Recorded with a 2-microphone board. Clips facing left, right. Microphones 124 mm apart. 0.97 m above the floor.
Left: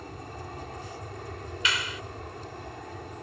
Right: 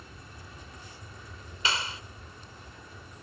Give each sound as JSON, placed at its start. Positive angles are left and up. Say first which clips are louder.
{"t": 0.0, "sound": "an aircraft", "louder": "left 9 dB", "side_deg": 55}
{"t": 1.6, "sound": "a clap", "louder": "right 1 dB", "side_deg": -35}